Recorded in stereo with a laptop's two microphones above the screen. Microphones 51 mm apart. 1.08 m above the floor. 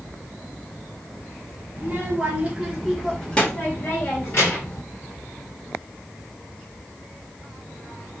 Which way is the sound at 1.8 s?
40° right (ahead or behind).